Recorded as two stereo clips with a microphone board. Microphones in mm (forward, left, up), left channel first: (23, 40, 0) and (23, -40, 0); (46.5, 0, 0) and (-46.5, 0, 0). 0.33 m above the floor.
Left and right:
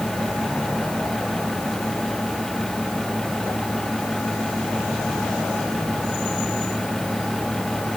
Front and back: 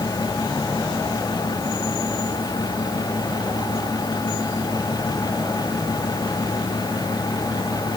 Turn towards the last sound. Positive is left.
No sound to turn to.